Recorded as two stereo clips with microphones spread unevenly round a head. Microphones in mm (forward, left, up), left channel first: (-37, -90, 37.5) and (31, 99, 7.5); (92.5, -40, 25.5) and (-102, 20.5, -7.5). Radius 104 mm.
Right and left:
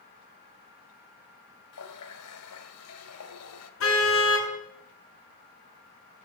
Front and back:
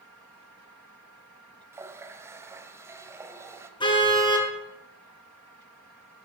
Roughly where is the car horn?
Right.